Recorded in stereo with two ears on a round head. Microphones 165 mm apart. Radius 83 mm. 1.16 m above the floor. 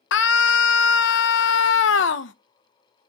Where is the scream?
70° left (ahead or behind), 1.0 m.